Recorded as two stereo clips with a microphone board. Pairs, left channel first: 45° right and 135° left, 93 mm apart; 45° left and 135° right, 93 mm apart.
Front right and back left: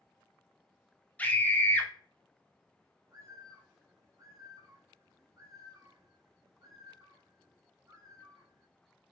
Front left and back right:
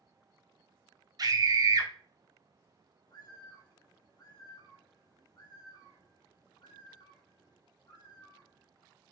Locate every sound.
1.2 s a scream: 115° right, 0.7 m
3.1 s a bird: 85° left, 0.7 m